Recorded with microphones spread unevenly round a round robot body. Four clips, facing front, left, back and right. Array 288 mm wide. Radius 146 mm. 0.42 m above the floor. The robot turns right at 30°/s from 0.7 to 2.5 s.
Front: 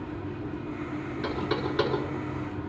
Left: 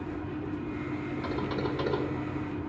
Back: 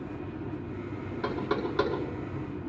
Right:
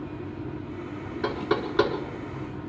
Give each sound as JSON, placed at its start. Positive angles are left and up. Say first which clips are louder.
{"t": 1.2, "sound": "knocking", "louder": "right 7 dB, even", "azimuth_deg": -115, "distance_m": 5.0}